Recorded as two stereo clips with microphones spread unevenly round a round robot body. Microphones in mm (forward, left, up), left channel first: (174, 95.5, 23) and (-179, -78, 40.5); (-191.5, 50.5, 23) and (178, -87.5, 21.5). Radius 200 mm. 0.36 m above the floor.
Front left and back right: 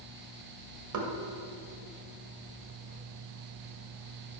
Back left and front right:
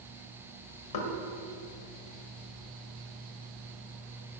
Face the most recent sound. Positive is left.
turn(degrees=170)